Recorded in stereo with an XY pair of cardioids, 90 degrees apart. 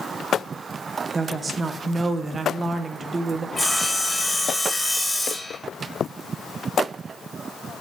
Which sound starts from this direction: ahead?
Sawing, at 3.6 s.